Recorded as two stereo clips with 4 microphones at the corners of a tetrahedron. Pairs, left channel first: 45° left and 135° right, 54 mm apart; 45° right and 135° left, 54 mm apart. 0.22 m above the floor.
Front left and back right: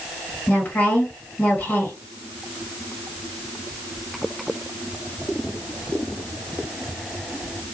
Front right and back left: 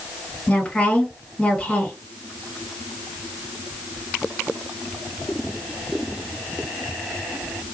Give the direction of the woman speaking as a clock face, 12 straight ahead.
11 o'clock.